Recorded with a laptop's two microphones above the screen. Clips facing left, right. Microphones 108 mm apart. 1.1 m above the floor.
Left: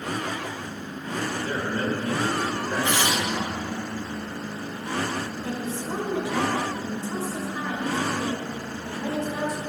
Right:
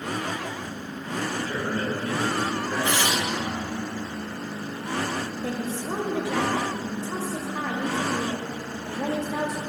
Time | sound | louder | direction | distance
1.4 | a man speaking | left 1 dB | 30° left (ahead or behind) | 1.9 m
2.8 | tearing paper | left 1 dB | 15° left (ahead or behind) | 2.5 m
5.4 | a woman speaking | right 1 dB | 85° right | 1.7 m